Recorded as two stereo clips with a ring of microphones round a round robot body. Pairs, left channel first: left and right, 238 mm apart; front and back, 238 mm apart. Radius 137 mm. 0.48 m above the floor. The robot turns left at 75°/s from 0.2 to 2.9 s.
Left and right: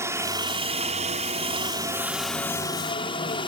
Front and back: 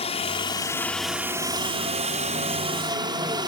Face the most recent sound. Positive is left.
turn(degrees=130)